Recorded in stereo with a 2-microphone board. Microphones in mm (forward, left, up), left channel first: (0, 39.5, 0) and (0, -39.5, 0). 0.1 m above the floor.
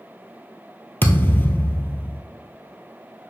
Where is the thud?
25° left (ahead or behind), 1.0 m.